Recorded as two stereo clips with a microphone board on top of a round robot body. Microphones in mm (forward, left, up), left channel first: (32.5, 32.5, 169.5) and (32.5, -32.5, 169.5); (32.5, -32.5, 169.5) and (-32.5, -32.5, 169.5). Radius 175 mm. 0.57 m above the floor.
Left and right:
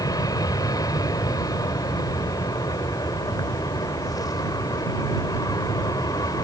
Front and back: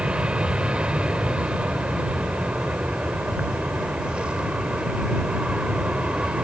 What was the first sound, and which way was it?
An aircraft, 105° left.